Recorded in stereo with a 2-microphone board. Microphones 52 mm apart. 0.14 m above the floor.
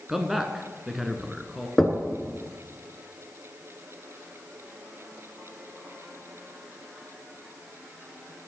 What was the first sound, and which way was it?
A man speaking, 5° right (ahead or behind).